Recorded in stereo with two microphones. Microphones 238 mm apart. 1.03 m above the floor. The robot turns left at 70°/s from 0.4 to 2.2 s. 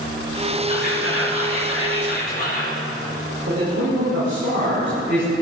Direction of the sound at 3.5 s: 60° right (ahead or behind).